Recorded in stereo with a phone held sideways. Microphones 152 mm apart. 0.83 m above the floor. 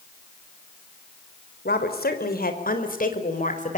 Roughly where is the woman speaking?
Left.